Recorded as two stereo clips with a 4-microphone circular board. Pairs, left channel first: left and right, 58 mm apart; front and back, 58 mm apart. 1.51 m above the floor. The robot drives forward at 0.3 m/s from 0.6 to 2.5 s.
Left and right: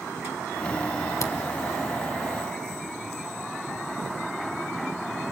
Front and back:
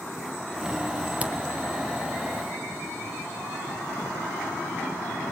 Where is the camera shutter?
115° left, 1.1 m.